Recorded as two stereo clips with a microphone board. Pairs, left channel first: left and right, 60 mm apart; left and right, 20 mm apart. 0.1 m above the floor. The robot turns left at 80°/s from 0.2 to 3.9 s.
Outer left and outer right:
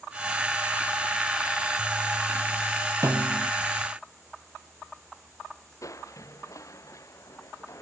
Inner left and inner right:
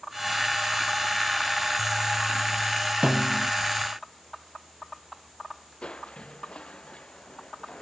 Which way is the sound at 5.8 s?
60° left (ahead or behind).